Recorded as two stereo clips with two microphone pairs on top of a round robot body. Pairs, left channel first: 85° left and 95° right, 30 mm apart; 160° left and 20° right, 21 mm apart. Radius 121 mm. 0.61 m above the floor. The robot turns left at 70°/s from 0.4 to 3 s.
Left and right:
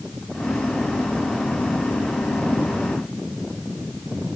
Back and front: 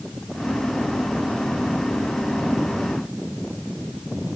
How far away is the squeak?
I don't hear a squeak.